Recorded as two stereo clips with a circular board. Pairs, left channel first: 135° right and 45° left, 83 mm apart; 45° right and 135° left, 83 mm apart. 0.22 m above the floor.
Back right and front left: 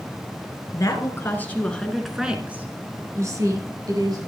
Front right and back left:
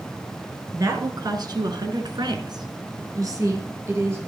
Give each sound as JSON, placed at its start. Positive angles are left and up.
{"t": 0.7, "sound": "a woman speaking", "azimuth_deg": 180, "distance_m": 3.0}